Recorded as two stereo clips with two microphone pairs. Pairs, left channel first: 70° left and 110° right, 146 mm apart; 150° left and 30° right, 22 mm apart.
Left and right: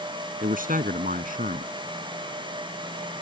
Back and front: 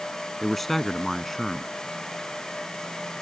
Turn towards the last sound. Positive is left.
turn(degrees=-125)